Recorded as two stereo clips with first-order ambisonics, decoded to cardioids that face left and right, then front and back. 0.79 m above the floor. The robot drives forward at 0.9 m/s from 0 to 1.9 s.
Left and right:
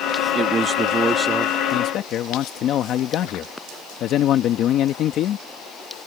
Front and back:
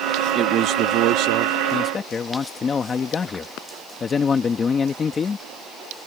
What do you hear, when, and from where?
0.3 s a man speaking: 140° right; by 1.6 s 165° right
1.7 s a man speaking: 50° left; by 5.5 s 60° left